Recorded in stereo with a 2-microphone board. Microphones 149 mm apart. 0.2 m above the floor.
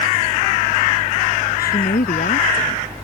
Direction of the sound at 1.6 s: 80° left.